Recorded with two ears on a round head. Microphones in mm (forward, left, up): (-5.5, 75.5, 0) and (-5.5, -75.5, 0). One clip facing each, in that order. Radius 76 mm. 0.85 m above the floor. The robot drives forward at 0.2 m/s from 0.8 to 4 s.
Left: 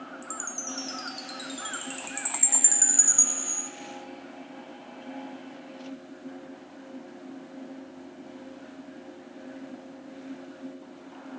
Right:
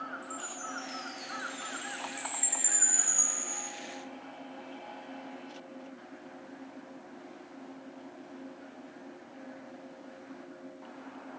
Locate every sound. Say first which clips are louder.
0.2 s a chime: left 2 dB; 55° left (ahead or behind), 0.5 m; by 3.7 s 25° left (ahead or behind), 0.9 m